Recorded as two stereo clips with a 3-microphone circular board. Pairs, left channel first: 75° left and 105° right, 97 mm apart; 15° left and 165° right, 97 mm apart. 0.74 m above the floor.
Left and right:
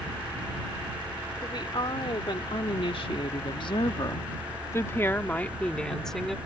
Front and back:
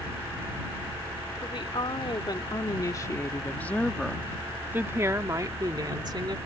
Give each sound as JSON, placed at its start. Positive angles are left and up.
{"t": 1.4, "sound": "a woman speaking", "azimuth_deg": 40}